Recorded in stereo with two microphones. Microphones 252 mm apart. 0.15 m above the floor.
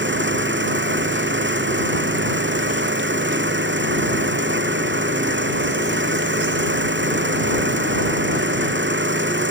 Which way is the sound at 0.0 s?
50° right (ahead or behind).